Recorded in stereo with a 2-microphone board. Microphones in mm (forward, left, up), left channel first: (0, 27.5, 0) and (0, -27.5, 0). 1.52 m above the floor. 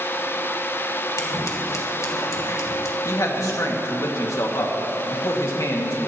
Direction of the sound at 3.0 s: 70° left (ahead or behind).